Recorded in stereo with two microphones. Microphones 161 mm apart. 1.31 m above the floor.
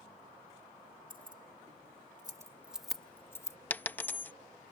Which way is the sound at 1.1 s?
65° right (ahead or behind).